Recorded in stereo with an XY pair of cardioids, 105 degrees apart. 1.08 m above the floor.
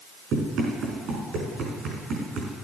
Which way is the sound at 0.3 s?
70° right.